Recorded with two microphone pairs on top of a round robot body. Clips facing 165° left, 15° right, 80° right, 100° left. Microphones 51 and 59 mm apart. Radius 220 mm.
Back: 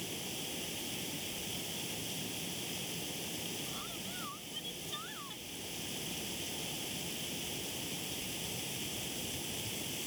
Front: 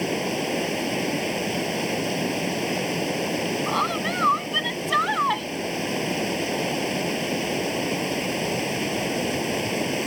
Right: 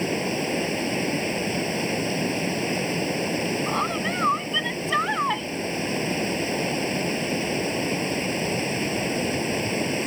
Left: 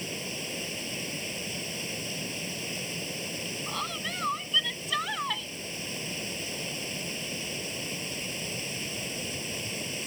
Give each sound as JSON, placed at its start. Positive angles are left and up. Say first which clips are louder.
{"t": 0.0, "sound": "running water", "louder": "front 18 dB, right 12 dB", "azimuth_deg": -35}
{"t": 3.7, "sound": "a woman speaking", "louder": "front 21 dB, right 9 dB", "azimuth_deg": -20}